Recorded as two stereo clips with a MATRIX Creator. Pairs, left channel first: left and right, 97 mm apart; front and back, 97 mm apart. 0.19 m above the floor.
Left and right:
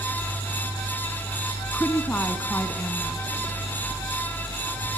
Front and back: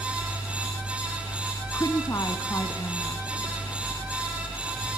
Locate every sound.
1.7 s a woman speaking: 30° left, 1.5 m